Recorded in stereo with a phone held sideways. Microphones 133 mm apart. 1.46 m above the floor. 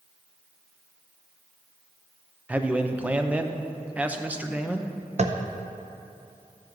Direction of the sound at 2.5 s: 10° right (ahead or behind).